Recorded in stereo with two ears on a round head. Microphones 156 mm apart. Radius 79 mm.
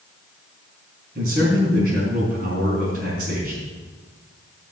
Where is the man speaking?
50° right (ahead or behind), 4.5 m.